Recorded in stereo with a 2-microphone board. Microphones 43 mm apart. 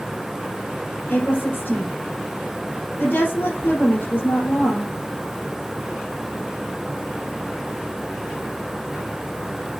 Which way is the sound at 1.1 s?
55° left (ahead or behind).